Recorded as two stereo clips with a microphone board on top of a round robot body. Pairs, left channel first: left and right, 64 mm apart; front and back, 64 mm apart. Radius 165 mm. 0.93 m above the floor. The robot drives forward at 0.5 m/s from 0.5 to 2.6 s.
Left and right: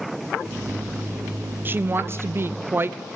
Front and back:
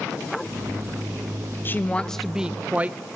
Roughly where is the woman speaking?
Ahead right.